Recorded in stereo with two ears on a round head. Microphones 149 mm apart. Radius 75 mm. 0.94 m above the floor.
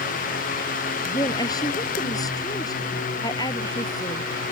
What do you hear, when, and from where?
1.1 s a woman speaking: 25° left (ahead or behind)